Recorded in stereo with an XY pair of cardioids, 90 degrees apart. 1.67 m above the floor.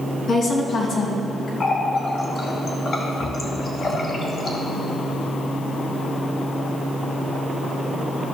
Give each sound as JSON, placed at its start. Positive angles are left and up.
{"t": 0.3, "sound": "a woman speaking", "azimuth_deg": 50, "distance_m": 2.5}
{"t": 1.6, "sound": "a running tap", "azimuth_deg": 60, "distance_m": 2.0}